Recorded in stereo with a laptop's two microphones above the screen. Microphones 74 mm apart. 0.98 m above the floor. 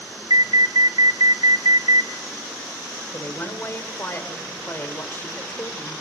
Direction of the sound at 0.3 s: 75° right (ahead or behind).